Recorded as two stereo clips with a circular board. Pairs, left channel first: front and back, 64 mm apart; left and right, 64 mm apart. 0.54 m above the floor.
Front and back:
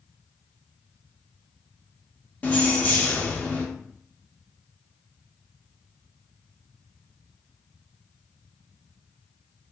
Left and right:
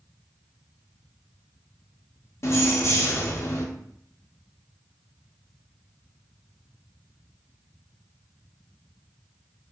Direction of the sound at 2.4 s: 60° left.